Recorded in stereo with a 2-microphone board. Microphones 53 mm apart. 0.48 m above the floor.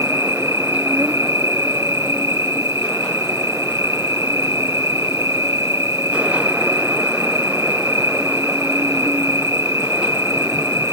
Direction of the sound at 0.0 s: 80° right.